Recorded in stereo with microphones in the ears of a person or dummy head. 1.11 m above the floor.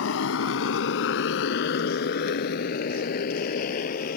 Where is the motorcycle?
80° left; by 4.2 s 45° left (ahead or behind).